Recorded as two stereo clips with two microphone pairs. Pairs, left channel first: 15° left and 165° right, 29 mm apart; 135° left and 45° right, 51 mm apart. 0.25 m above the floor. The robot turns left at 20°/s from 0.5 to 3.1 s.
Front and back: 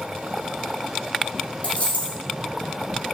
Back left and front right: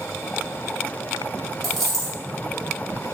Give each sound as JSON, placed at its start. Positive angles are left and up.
{"t": 1.6, "sound": "a dropped coin", "azimuth_deg": 55, "distance_m": 1.8}